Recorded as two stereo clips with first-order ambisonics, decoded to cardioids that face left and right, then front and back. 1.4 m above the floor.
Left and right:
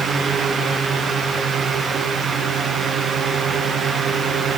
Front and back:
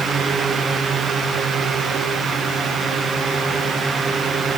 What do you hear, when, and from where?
Only background noise.